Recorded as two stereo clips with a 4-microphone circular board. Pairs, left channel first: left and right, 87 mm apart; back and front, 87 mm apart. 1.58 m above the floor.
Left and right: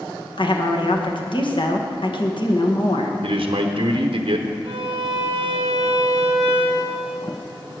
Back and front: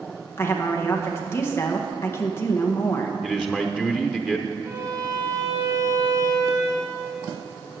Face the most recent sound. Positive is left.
turn(degrees=-60)